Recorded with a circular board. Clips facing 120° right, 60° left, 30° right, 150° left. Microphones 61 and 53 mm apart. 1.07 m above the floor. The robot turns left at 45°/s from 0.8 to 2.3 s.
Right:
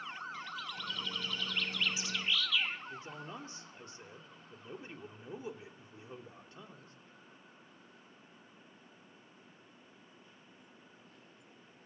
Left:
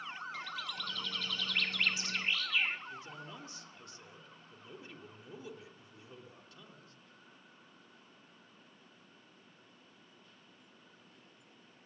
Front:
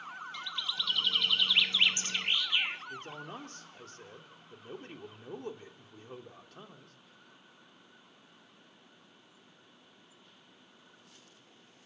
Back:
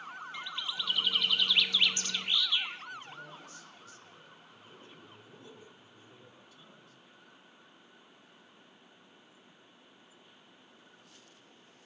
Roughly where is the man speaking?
Ahead right.